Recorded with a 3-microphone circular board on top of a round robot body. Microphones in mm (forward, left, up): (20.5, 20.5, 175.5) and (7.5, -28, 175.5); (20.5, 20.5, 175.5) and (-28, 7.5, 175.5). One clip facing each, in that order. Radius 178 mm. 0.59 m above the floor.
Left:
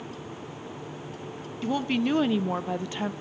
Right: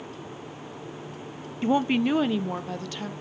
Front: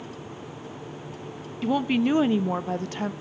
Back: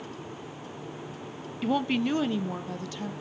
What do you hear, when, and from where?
1.6 s a woman speaking: 80° right, 0.7 m; by 3.1 s 20° left, 0.9 m